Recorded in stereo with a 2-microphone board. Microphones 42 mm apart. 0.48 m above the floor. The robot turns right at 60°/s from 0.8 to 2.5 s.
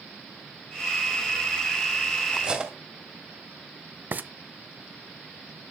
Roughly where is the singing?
I don't hear singing.